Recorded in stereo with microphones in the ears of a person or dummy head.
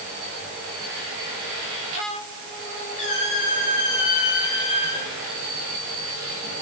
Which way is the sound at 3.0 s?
45° left (ahead or behind).